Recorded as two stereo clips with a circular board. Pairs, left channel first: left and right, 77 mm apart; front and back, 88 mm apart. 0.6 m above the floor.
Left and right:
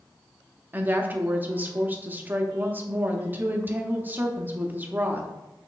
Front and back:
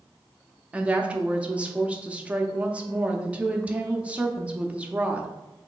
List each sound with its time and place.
0.7 s a woman speaking: 120° right, 0.6 m